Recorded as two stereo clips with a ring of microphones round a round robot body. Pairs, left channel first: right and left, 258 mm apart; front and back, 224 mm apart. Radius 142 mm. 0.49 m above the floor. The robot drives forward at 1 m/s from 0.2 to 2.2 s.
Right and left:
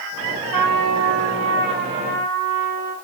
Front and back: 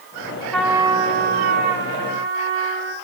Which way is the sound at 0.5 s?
85° left.